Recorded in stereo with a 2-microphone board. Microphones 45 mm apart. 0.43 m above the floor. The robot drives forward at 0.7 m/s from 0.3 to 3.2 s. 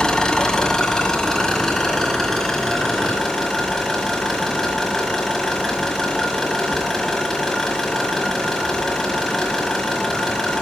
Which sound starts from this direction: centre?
An engine running, at 0.0 s.